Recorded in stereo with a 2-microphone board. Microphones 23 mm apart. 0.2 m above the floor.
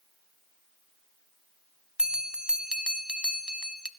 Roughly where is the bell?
Right.